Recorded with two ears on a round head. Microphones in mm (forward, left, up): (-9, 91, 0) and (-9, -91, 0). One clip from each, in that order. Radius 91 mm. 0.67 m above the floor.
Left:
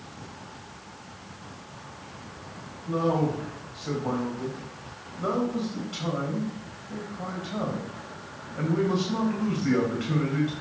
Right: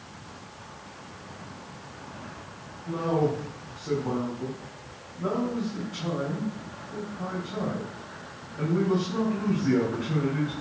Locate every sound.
2.9 s a man speaking: 75° left (ahead or behind), 4 m